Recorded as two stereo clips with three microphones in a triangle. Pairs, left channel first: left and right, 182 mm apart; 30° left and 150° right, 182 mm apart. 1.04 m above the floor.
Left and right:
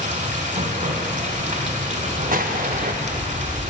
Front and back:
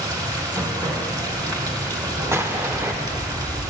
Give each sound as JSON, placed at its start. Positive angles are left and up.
{"t": 0.0, "sound": "running water", "azimuth_deg": -90, "distance_m": 1.1}
{"t": 2.3, "sound": "an explosion", "azimuth_deg": -75, "distance_m": 0.6}